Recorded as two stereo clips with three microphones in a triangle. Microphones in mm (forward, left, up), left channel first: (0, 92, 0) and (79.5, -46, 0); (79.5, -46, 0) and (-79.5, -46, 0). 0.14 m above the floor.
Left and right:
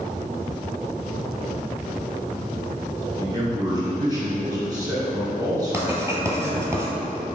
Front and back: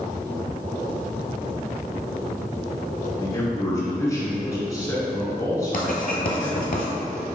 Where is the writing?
10° left, 0.9 m.